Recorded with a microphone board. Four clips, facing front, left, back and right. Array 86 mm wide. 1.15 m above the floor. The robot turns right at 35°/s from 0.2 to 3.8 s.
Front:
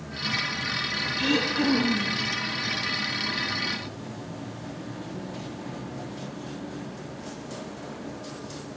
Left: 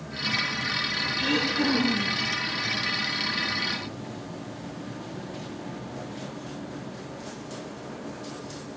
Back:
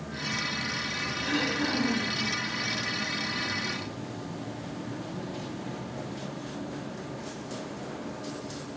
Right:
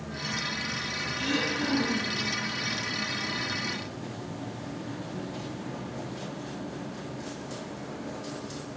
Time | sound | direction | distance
1.1 | throat clearing | 15° left | 7 m